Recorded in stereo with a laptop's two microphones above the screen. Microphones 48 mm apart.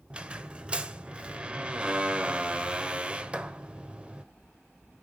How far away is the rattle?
I don't hear a rattle.